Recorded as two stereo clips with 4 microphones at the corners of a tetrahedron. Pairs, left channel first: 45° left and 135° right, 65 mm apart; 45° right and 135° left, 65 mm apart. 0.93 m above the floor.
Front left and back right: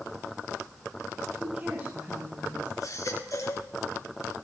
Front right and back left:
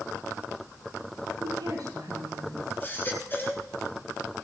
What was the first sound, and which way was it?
A woman speaking, 165° left.